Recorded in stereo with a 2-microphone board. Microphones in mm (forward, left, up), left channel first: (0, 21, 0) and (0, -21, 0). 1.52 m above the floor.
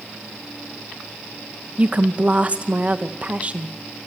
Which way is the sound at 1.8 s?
30° right (ahead or behind).